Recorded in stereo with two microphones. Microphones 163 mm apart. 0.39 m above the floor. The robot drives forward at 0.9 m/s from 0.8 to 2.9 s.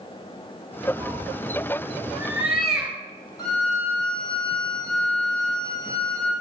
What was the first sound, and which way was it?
A cat meowing, 15° right (ahead or behind).